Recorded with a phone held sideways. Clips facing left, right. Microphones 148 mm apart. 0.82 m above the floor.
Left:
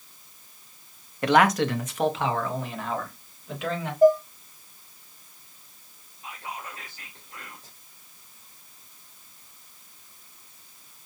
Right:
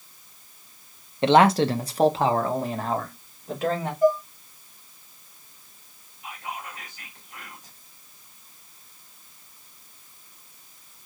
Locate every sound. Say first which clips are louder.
1.2 s a man speaking: right 3 dB; 25° right (ahead or behind), 0.6 m; by 3.9 s 40° right (ahead or behind), 2 m
4.0 s dishes clattering: left 3 dB; 45° left (ahead or behind), 1.1 m
6.2 s whispering: right 2 dB; 35° left (ahead or behind), 3 m